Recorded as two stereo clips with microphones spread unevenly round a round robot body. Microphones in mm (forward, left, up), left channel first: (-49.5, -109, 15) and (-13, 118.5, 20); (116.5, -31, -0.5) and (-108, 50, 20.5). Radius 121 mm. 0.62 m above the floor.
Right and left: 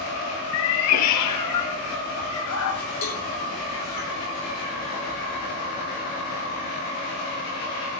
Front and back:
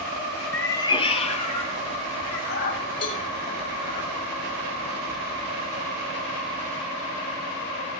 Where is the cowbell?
90° right, 3.5 m.